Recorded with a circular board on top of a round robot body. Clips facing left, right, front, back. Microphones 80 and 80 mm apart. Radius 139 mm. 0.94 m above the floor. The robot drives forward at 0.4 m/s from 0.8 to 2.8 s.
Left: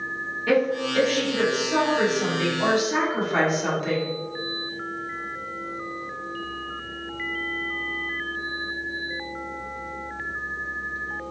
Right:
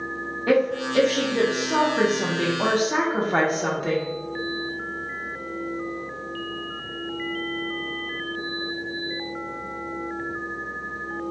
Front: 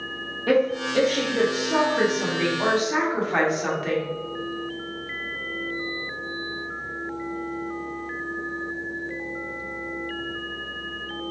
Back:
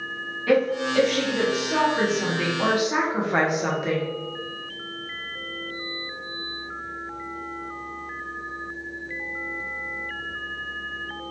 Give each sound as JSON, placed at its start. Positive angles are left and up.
{"t": 0.5, "sound": "a woman speaking", "azimuth_deg": -40, "distance_m": 1.0}